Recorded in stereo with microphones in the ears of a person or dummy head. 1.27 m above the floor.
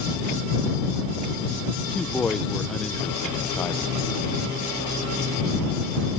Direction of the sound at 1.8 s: 10° left (ahead or behind).